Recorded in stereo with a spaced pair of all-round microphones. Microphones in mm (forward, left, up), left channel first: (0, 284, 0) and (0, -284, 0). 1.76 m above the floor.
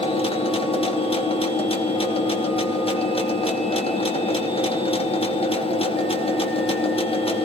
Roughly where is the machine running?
Centre.